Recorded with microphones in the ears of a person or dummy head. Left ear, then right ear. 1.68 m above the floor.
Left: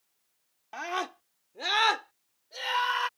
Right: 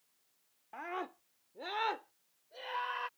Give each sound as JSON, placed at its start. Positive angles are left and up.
{"t": 0.7, "sound": "a scream", "side_deg": 80}